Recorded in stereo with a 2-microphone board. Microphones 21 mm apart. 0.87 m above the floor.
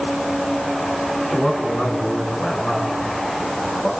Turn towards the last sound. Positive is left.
turn(degrees=50)  # may be behind; listen again after turning